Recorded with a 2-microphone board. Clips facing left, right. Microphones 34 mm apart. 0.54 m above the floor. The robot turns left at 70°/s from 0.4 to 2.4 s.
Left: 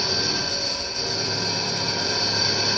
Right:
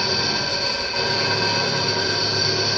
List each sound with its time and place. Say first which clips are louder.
0.0 s an engine running: right 3 dB; 20° right, 1.7 m; by 2.8 s 160° right, 1.7 m